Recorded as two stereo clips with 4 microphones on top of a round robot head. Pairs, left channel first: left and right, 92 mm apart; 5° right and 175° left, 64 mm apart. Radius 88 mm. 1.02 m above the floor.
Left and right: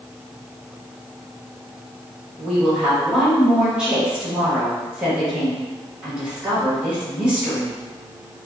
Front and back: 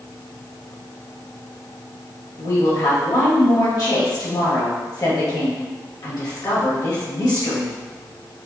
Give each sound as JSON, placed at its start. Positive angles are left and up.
{"t": 2.4, "sound": "a woman speaking", "azimuth_deg": -10, "distance_m": 1.8}